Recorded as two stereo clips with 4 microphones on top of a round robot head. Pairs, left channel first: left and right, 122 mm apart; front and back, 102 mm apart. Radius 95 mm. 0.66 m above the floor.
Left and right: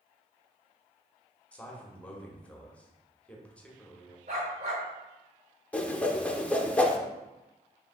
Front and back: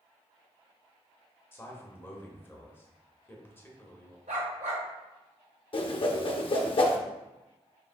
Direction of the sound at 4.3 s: 140° right.